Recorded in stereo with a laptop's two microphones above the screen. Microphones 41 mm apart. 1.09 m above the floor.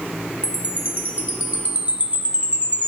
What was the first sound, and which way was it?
A chime, 35° right (ahead or behind).